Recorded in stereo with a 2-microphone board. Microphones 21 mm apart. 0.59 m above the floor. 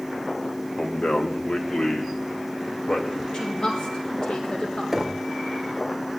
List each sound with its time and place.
0.8 s a man speaking: 60° left (ahead or behind), 2.5 m; by 3.2 s 75° left (ahead or behind), 4 m
3.3 s a woman speaking: 45° left (ahead or behind), 7 m
4.9 s knocking: 5° right (ahead or behind), 1.4 m